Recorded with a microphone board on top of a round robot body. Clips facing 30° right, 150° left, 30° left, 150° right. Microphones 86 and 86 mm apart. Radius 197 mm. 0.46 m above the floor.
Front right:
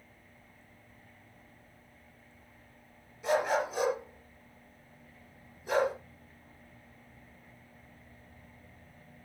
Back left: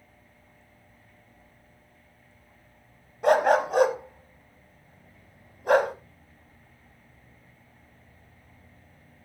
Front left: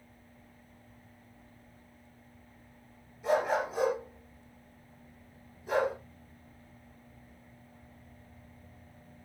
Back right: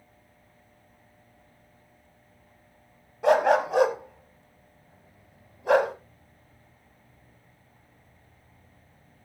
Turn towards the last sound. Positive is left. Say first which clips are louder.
# back left 8 dB, back right 8 dB
turn(degrees=-175)